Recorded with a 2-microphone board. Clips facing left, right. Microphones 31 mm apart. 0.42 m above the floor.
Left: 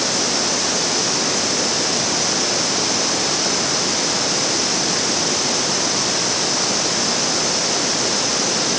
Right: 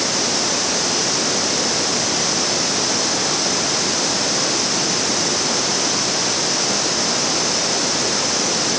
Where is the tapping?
I don't hear tapping.